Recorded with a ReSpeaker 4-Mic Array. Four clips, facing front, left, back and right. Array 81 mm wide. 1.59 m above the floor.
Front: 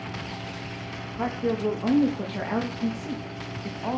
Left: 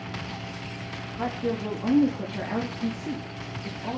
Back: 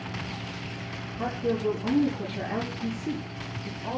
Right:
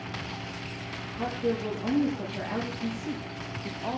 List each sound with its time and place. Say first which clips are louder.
1.2 s a woman speaking: even, front 2 dB; 10° left, 3 m; by 4.0 s 20° right, 3 m